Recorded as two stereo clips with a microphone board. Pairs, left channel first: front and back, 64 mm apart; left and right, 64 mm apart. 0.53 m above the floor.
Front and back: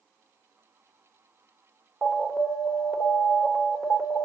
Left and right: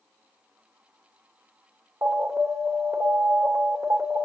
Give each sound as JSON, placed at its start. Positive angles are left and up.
{"t": 2.0, "sound": "an alarm", "azimuth_deg": -105, "distance_m": 1.7}